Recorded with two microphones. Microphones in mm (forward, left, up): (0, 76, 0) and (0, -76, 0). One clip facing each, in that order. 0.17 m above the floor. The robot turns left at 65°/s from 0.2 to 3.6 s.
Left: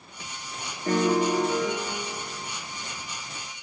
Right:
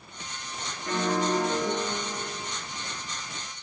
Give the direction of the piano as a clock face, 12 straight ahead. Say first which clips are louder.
Left 4 dB; 10 o'clock.